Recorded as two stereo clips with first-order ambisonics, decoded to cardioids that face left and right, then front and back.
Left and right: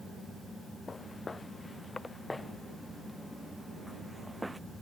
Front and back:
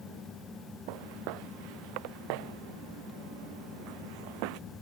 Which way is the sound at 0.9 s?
165° left.